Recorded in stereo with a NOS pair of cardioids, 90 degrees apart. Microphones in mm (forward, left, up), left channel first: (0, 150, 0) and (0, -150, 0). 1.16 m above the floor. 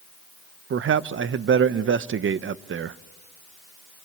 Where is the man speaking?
45° right, 0.9 m.